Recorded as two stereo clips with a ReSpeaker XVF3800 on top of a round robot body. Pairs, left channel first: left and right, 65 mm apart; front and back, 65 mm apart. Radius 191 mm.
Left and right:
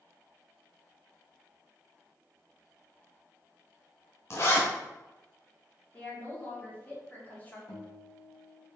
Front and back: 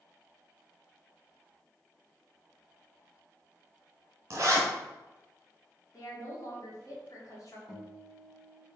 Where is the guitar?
85° left, 1.7 m.